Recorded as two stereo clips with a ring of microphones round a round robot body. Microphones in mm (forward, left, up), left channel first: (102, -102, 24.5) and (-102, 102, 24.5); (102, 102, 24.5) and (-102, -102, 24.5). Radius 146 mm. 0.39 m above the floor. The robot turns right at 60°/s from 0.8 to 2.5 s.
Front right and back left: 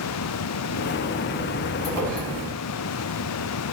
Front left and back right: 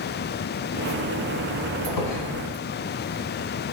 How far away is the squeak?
About 2 m.